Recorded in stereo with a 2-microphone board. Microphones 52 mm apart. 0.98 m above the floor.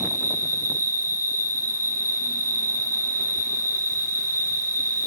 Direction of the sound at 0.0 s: 85° right.